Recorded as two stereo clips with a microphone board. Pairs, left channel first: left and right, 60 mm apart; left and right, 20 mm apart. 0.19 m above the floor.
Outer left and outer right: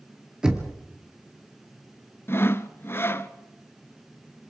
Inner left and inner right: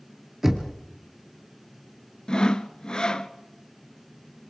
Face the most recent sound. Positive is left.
turn(degrees=40)  # may be behind; listen again after turning